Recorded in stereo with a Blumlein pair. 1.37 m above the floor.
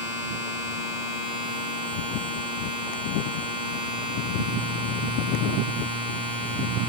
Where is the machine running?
55° left, 4.5 m.